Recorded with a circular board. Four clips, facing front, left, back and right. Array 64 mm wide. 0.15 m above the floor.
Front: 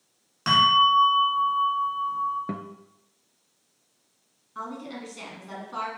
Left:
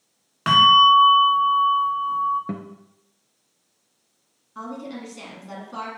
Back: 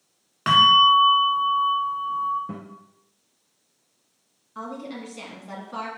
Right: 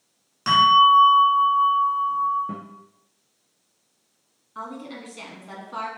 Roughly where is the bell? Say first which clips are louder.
Left 1 dB, back 3 dB; behind left.